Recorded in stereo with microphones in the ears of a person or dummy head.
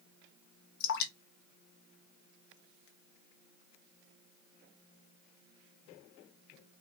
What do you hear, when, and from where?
0.8 s dripping: 65° left (ahead or behind), 0.8 m